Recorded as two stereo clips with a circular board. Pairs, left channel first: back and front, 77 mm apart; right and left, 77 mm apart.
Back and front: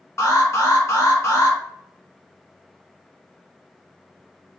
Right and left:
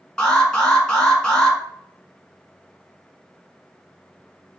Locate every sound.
0.2 s an alarm: 165° right, 0.9 m